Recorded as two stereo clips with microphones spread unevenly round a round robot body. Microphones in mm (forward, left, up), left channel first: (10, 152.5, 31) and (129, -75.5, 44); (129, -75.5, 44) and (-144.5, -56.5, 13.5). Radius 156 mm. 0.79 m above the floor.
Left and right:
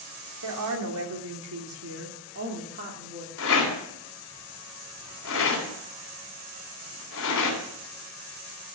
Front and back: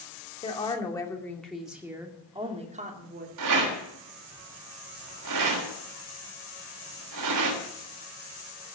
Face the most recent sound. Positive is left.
turn(degrees=160)